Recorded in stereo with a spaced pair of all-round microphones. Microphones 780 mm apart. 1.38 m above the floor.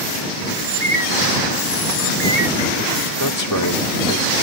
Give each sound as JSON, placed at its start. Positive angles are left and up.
{"t": 0.6, "sound": "a bird", "side_deg": -85}
{"t": 3.2, "sound": "a man speaking", "side_deg": 25}